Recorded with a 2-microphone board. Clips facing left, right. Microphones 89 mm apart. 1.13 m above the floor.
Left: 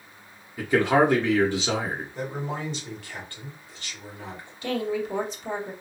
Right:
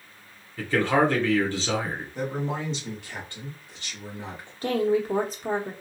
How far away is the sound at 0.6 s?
About 0.8 m.